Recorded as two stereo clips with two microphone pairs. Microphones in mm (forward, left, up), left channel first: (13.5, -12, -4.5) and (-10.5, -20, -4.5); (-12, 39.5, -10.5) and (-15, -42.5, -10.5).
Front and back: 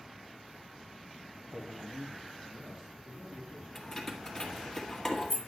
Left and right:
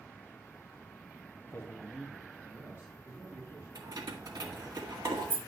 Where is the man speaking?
125° left, 1.0 m; by 3.6 s 140° right, 3 m.